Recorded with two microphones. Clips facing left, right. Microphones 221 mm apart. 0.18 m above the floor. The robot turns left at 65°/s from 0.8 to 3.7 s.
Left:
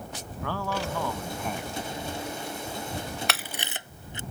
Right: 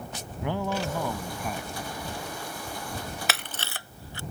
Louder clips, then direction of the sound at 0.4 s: Right 2 dB; 20° right (ahead or behind).